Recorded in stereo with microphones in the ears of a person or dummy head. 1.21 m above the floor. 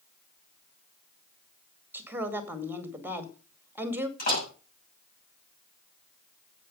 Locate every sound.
1.9 s a woman speaking: 10° right (ahead or behind), 2.0 m
4.2 s a door slam: 55° left (ahead or behind), 7.5 m